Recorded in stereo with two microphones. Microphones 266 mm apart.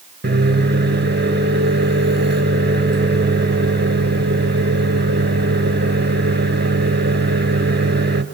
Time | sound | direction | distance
0.2 | a microwave | 40° right (ahead or behind) | 3 m